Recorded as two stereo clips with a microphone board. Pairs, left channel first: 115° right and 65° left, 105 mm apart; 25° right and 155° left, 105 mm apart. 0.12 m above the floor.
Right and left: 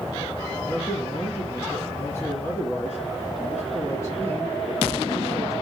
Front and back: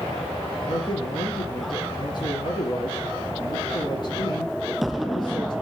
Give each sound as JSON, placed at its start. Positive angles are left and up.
{"t": 0.7, "sound": "a man speaking", "azimuth_deg": -55, "distance_m": 1.9}